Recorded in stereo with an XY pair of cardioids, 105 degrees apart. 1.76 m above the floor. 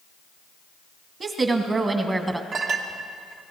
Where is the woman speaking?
45° right, 2.5 m; by 2.4 s 20° right, 1.4 m.